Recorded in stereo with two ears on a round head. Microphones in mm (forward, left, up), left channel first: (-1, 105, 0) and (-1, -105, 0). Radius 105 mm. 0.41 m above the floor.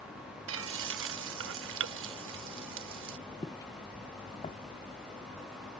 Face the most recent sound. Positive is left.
turn(degrees=25)  # may be behind; listen again after turning